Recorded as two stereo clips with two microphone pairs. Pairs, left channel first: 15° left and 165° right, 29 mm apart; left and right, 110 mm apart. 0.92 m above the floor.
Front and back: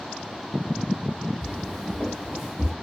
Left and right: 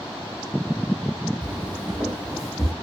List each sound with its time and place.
1.4 s footsteps: 35° right, 0.9 m; by 2.7 s 120° right, 1.1 m